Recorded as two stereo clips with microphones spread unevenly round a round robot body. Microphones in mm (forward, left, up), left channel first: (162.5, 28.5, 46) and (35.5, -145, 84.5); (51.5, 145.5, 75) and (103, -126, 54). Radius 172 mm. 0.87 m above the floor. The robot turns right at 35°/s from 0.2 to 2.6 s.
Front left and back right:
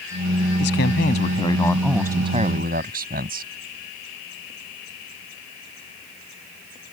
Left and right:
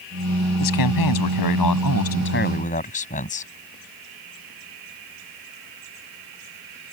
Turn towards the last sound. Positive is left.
turn(degrees=170)